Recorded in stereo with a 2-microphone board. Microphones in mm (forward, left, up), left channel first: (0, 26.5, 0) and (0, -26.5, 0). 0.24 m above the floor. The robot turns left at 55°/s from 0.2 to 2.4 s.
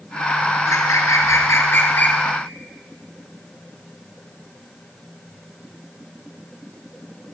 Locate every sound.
0.7 s a bird: 110° left, 1.1 m; by 2.2 s 20° left, 1.1 m